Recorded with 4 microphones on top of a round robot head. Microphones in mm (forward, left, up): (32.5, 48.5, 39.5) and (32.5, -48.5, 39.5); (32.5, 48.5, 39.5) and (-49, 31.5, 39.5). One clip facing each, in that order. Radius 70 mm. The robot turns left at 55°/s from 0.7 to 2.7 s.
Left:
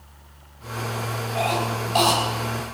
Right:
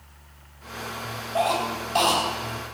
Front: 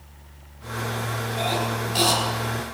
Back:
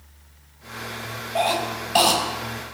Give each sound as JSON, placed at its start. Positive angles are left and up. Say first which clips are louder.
{"t": 1.4, "sound": "a cough", "louder": "right 1 dB, back 4 dB", "azimuth_deg": -155, "distance_m": 4.5}